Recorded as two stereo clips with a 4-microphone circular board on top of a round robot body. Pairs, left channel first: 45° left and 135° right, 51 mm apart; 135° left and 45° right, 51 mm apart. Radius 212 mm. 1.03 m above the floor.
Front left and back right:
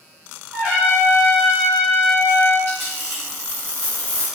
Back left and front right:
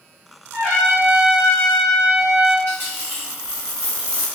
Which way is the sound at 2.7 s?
Straight behind.